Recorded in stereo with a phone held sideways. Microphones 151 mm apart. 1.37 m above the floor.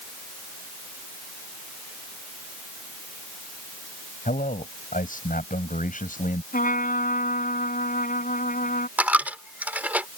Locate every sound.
4.2 s a man speaking: 65° left (ahead or behind)
6.5 s a trumpet: 65° left (ahead or behind)
9.0 s a dropped coin: 10° right (ahead or behind)